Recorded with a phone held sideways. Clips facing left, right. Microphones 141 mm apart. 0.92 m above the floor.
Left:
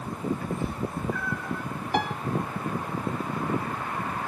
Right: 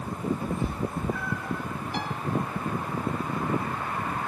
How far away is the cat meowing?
About 1.8 m.